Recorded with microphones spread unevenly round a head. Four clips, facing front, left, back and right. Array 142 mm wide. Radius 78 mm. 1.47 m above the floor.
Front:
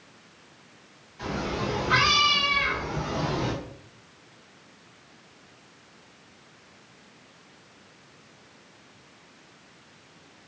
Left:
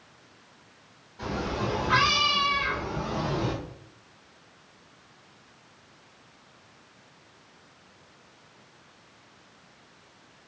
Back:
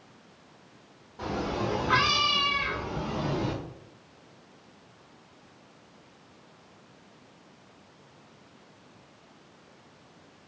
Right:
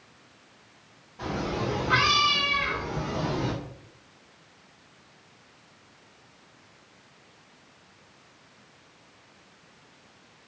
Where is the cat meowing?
165° right, 1.1 m; by 3.5 s 5° left, 1.0 m.